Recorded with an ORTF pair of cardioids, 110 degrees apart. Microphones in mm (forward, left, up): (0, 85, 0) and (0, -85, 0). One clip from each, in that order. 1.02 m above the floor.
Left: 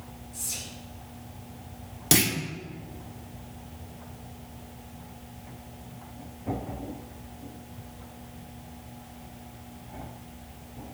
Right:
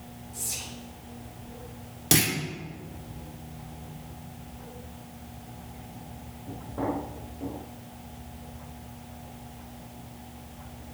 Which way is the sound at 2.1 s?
10° left.